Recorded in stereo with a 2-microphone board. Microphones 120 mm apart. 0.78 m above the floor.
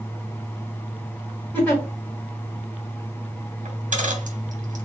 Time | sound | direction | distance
1.5 | a giggle | 10° left (ahead or behind) | 1.4 m
3.6 | a dropped coin | 80° right | 1.0 m